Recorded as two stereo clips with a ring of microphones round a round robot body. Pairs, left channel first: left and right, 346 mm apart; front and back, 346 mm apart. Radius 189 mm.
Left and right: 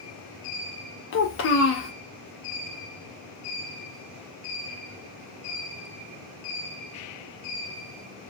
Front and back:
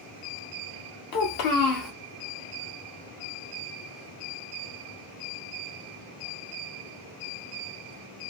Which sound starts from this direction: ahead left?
A child speaking, at 1.1 s.